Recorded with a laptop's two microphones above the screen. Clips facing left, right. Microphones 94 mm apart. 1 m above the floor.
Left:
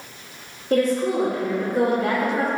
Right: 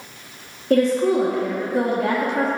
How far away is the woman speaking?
About 1.4 m.